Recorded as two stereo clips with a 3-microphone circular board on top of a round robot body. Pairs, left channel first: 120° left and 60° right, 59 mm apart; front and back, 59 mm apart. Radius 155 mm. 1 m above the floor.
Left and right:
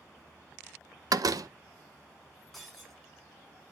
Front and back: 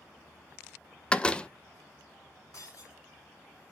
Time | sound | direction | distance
1.1 | a door slam | 75° right | 0.7 m
2.5 | breaking glass | 30° left | 5 m